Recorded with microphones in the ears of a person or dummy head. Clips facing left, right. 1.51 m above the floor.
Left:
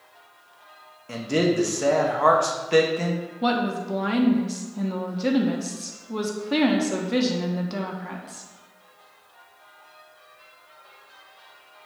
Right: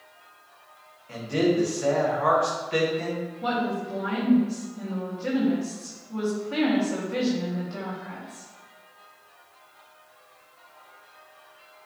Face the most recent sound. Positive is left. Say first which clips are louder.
# left 4 dB
turn(degrees=60)  # may be behind; listen again after turning